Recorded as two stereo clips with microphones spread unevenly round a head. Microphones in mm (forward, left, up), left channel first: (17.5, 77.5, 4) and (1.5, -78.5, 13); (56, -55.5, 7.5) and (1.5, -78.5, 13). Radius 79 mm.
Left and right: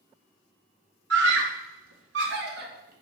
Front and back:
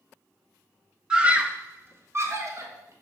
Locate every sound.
1.1 s a scream: 80° right, 1.7 m; by 2.9 s 130° right, 3 m